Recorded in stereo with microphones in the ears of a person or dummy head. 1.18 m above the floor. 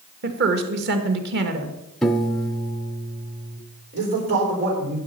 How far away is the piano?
About 0.5 m.